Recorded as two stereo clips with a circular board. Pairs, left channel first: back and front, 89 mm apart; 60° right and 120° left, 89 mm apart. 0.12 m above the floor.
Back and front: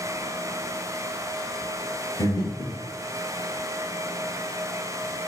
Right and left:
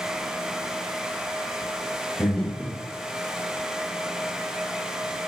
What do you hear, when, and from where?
2.2 s breathing: 140° right, 1.0 m